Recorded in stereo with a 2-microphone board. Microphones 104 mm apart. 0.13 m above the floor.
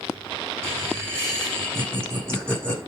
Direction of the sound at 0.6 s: 25° right (ahead or behind).